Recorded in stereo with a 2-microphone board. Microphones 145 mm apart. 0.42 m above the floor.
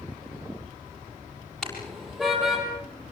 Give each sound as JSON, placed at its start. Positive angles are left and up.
{"t": 1.6, "sound": "a car horn", "side_deg": 5, "distance_m": 6.5}